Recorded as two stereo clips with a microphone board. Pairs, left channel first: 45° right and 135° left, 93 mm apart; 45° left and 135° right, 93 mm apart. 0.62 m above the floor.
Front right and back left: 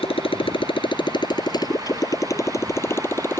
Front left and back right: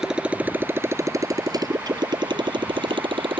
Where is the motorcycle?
50° right; by 3.4 s 110° right.